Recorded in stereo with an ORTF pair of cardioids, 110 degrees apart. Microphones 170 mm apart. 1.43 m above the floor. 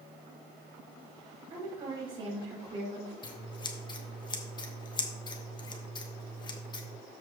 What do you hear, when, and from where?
1.5 s a woman speaking: 35° right, 5 m
3.2 s scissors: 25° left, 1.4 m